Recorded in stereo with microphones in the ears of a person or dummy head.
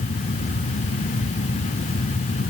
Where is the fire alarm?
I don't hear a fire alarm.